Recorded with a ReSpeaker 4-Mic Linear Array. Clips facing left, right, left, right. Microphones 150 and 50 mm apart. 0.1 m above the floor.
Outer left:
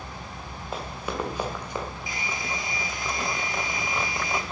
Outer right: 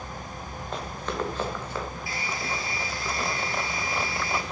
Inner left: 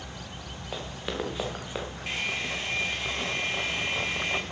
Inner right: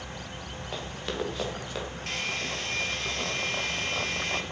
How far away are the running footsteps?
About 4 m.